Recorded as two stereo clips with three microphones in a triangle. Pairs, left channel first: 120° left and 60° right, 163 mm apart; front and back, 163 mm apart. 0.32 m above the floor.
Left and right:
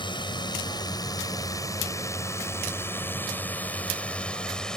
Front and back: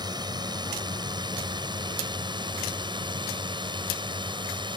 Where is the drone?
145° left; by 4.8 s 155° right.